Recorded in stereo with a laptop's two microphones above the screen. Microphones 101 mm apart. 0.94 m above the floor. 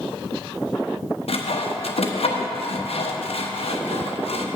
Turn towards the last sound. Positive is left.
turn(degrees=80)